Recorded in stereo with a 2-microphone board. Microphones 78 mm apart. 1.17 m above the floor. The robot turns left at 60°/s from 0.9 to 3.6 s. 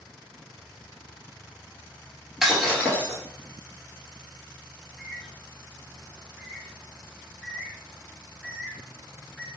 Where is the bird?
15° left (ahead or behind), 1.7 m.